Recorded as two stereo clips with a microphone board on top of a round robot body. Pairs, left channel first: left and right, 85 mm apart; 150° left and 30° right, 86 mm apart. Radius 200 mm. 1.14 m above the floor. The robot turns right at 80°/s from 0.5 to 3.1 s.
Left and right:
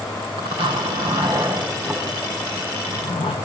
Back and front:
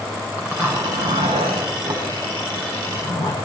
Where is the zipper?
105° right, 6.5 m; by 3.4 s 105° left, 6.5 m.